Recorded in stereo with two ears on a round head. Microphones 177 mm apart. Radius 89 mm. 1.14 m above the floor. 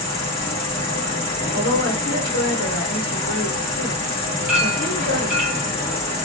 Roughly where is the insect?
Left.